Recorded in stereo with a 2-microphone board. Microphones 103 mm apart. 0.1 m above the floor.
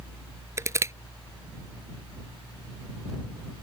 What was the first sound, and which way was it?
Crushing, 30° right (ahead or behind).